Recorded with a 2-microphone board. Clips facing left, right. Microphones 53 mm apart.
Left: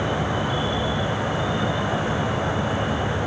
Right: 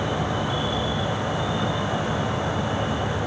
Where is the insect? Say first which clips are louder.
Left 1 dB; 15° left (ahead or behind), 2 m.